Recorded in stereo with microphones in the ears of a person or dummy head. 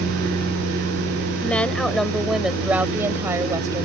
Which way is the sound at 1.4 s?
10° left (ahead or behind).